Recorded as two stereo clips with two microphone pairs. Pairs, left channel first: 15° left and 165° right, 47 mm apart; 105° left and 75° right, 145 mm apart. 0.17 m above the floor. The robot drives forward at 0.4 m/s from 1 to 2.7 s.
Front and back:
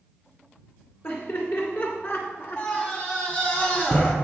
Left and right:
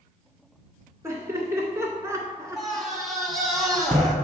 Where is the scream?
15° left, 1.3 m.